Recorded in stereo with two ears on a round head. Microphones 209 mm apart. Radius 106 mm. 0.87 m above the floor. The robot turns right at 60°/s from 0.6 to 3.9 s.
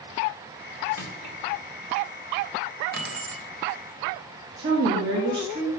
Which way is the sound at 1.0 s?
70° left (ahead or behind).